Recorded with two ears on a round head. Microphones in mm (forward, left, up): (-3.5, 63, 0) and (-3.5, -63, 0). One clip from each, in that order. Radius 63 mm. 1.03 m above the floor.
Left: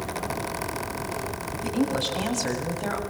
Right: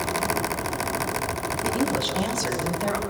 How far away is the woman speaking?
About 8 m.